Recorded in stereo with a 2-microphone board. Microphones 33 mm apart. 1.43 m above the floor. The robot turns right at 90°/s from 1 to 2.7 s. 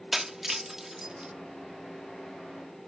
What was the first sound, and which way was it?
Breaking glass, 10° right (ahead or behind).